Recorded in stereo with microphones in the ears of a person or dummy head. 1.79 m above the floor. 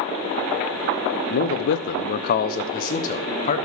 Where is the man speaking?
45° left (ahead or behind), 0.6 m.